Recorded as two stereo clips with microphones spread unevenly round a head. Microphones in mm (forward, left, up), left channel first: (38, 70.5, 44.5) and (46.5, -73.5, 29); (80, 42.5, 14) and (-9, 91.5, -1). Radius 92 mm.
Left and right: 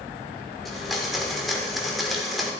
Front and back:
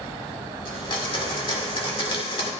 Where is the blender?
5° left, 2.5 m.